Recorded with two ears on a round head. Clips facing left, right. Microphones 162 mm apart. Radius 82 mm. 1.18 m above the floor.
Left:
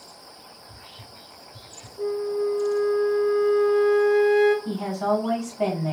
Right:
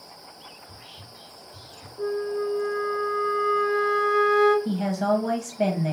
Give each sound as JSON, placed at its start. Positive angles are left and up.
{"t": 0.6, "sound": "whispering", "side_deg": -70, "distance_m": 1.7}
{"t": 2.0, "sound": "a flute", "side_deg": 5, "distance_m": 0.9}
{"t": 4.7, "sound": "a woman speaking", "side_deg": -20, "distance_m": 1.0}